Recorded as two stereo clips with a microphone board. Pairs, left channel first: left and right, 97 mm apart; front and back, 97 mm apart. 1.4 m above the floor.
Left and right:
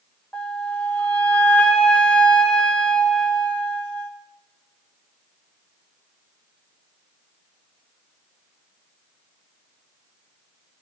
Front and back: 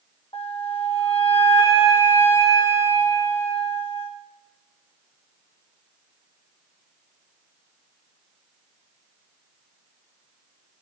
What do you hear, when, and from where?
0.3 s a flute: 15° left, 1.3 m